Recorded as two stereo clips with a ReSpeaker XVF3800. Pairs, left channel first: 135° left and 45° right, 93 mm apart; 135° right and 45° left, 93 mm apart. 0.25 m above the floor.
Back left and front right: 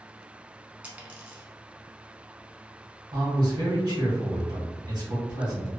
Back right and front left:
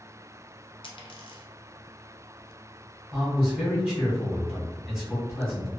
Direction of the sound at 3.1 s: 35° right.